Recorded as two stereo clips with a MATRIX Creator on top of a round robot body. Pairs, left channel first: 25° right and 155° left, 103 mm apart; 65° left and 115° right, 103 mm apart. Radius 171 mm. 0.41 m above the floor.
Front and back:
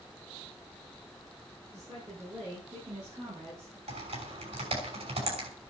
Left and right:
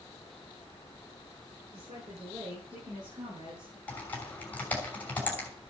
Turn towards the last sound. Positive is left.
turn(degrees=145)